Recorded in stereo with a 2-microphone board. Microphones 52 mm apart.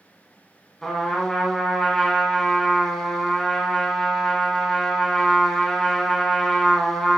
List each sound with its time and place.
0.8 s a trumpet: 10° left (ahead or behind), 1.6 m